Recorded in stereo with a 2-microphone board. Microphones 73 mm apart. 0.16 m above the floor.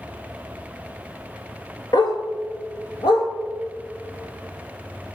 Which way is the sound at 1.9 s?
65° left (ahead or behind).